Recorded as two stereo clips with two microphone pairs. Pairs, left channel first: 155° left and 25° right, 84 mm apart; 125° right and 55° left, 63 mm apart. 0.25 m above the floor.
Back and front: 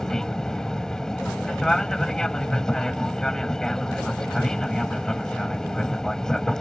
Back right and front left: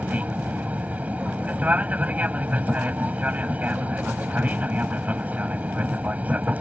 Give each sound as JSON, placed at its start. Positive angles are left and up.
{"t": 0.0, "sound": "an aircraft", "azimuth_deg": 80}